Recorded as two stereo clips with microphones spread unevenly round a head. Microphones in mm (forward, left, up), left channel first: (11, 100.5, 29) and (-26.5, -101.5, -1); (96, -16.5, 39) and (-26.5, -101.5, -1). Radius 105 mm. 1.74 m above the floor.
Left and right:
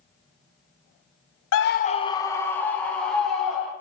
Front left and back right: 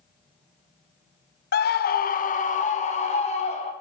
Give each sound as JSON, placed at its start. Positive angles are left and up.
{"t": 1.5, "sound": "a scream", "azimuth_deg": 60, "distance_m": 0.5}